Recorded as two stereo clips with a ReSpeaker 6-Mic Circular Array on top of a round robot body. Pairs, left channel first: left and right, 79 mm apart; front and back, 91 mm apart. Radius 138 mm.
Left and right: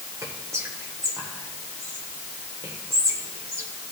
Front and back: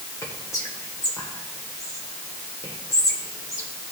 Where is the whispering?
45° right, 1.5 m.